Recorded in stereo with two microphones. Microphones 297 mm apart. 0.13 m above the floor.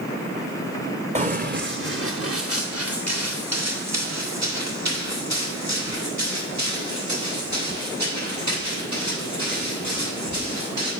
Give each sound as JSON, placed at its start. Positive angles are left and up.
{"t": 1.1, "sound": "running footsteps", "side_deg": -25, "distance_m": 0.7}